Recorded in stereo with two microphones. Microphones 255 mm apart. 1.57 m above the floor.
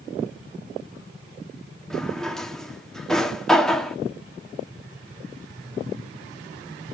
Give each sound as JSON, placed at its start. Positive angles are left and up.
{"t": 1.9, "sound": "a drawer", "side_deg": 0, "distance_m": 1.5}